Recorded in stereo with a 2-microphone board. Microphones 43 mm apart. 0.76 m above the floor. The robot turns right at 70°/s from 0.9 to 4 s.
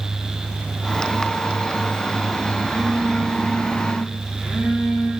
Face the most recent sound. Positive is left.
turn(degrees=-35)